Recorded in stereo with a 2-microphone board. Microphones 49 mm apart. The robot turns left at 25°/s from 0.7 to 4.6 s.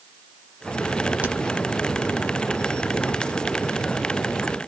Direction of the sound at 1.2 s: 35° right (ahead or behind).